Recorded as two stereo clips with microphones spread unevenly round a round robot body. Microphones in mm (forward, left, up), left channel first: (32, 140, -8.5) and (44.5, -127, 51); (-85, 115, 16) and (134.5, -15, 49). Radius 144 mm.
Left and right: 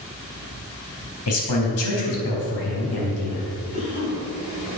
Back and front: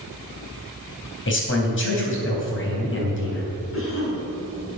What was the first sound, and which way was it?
A man speaking, 115° left.